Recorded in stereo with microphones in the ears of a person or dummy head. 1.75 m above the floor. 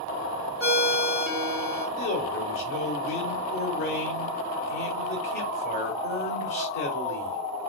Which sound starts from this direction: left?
A man speaking, at 2.0 s.